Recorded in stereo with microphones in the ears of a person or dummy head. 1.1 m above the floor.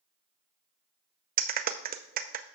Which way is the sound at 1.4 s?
45° right (ahead or behind).